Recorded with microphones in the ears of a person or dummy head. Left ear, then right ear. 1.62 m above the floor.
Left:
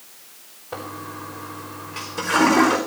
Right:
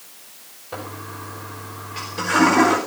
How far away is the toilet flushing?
About 4.5 m.